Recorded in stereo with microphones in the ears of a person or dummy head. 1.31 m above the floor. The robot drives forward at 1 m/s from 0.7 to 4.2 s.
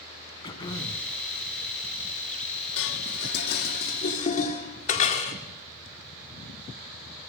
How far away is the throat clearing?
About 2.5 m.